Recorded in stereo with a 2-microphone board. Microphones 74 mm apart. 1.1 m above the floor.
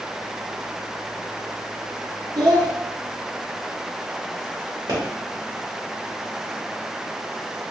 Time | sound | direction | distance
2.4 | a child speaking | 90° right | 1.4 m
4.9 | a pop | 75° right (ahead or behind) | 1.7 m